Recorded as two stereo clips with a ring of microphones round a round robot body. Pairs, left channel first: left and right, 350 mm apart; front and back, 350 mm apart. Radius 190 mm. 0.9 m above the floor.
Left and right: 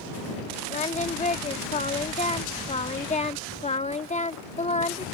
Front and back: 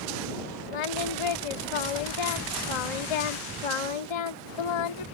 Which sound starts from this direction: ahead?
Singing, at 0.7 s.